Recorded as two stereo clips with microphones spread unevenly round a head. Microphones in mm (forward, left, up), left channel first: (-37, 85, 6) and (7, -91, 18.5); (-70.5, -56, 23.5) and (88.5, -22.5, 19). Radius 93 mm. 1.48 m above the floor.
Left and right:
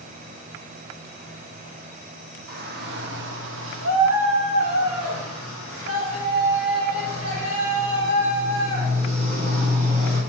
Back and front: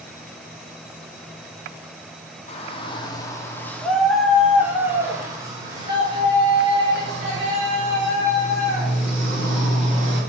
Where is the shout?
115° right, 1.6 m; by 10.2 s 25° right, 4.5 m.